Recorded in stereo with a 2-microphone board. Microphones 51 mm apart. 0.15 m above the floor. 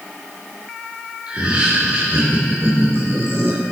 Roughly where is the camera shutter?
No camera shutter in this recording.